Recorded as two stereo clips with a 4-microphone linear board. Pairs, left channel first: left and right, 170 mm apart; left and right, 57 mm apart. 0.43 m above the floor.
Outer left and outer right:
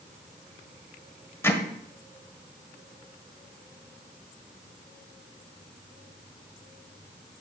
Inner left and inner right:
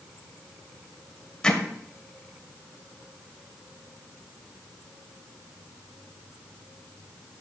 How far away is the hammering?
About 1.6 m.